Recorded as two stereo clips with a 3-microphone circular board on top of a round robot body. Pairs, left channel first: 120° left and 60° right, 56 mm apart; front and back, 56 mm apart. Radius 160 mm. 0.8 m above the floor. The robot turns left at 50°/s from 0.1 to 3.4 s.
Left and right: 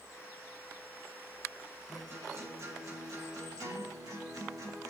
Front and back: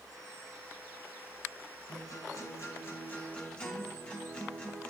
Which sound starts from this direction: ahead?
A guitar, at 1.9 s.